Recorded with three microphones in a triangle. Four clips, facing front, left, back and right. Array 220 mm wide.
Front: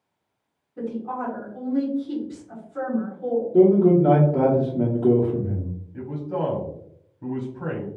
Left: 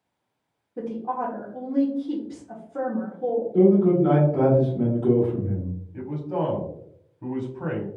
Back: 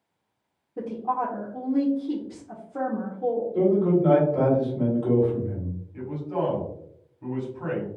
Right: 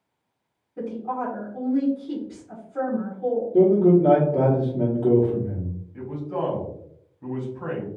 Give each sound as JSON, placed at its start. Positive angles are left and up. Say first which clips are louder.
{"t": 0.8, "sound": "a woman speaking", "louder": "even, back 2 dB", "azimuth_deg": 150, "distance_m": 1.5}
{"t": 3.5, "sound": "a man speaking", "louder": "right 1 dB, front 7 dB", "azimuth_deg": -30, "distance_m": 1.6}
{"t": 5.9, "sound": "a man speaking", "louder": "left 1 dB, front 1 dB", "azimuth_deg": 75, "distance_m": 1.6}